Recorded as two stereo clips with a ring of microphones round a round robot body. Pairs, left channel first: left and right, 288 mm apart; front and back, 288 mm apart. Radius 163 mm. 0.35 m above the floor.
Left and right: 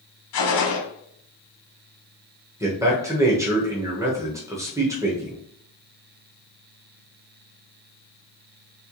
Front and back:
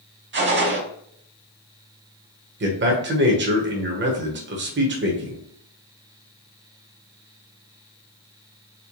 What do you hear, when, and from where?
0.3 s a gunshot: 125° left, 1.1 m
2.6 s a man speaking: 165° right, 1.1 m